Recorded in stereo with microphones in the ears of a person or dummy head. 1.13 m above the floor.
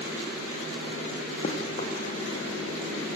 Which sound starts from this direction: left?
Running footsteps, at 1.4 s.